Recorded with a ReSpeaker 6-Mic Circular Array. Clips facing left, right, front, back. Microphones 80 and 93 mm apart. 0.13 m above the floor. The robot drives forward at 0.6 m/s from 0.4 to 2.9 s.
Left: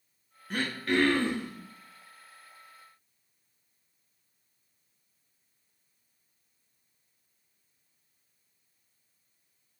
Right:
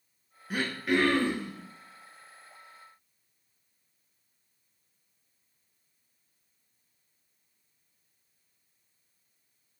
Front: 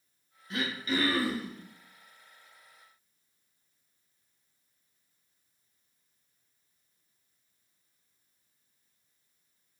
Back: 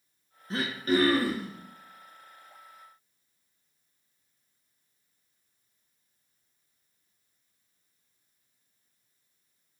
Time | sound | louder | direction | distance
0.5 | throat clearing | right 1 dB, back 5 dB | 165° right | 0.7 m